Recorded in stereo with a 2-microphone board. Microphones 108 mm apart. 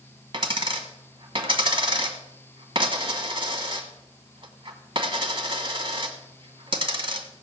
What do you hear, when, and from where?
0.3 s a dropped coin: 50° right (ahead or behind), 1.5 m